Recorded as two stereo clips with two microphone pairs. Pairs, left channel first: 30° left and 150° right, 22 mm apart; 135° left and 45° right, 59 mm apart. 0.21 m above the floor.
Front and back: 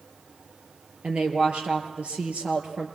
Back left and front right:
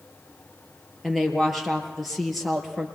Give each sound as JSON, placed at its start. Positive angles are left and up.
{"t": 1.0, "sound": "a woman speaking", "azimuth_deg": -135, "distance_m": 4.5}